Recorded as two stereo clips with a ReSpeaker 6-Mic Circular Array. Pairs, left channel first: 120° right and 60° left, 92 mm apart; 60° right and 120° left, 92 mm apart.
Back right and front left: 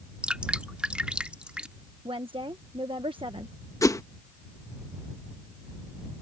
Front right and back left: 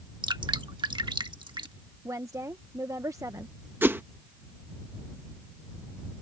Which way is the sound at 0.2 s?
135° left.